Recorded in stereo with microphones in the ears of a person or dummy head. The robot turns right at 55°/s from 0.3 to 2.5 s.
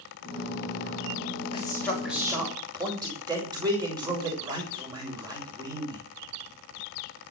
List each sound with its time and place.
1.5 s a man speaking: 150° left, 7 m; by 6.0 s 155° right, 7 m